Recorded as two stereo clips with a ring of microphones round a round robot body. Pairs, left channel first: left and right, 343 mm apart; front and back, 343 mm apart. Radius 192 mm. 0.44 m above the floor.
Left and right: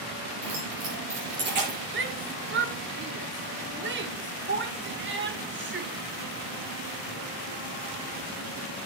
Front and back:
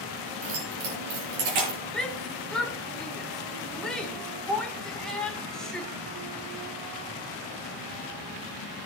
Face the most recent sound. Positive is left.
turn(degrees=-85)